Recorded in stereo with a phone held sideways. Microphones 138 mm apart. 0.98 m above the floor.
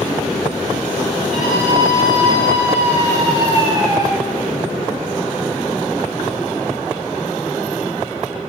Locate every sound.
1.3 s a scream: 70° right (ahead or behind), 3.5 m; by 4.1 s 30° right (ahead or behind), 4 m